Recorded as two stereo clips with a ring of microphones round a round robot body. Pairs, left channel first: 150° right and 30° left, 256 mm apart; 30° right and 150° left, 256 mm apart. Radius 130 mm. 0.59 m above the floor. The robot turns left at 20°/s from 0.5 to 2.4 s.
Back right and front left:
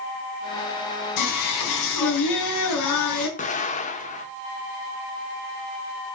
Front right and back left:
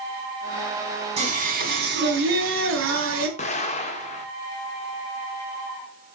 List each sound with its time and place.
1.2 s singing: 145° right, 2.5 m; by 3.3 s 170° right, 2.5 m
3.4 s an explosion: 90° right, 1.4 m